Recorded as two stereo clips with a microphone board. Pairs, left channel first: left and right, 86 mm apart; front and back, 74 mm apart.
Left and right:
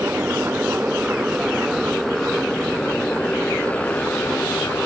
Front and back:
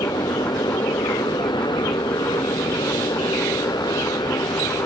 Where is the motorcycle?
20° right; by 4.9 s 20° left.